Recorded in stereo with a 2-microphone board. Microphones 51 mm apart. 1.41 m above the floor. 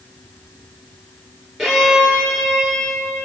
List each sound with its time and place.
1.6 s a violin: 5° right (ahead or behind), 9.5 m